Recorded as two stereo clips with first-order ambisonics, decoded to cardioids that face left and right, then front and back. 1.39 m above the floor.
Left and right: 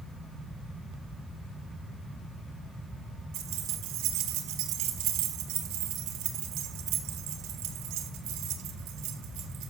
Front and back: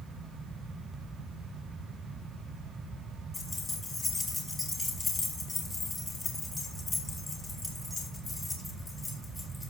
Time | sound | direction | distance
3.3 | keys jangling | 75° right | 3 m